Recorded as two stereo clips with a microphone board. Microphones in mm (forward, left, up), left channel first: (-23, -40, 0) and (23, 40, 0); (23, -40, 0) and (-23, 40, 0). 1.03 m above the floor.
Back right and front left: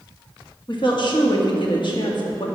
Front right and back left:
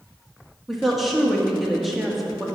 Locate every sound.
0.7 s a woman speaking: 150° right, 1.5 m